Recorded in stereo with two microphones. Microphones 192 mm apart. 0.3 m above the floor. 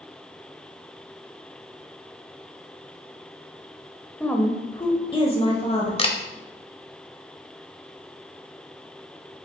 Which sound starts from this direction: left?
A camera shutter, at 6.0 s.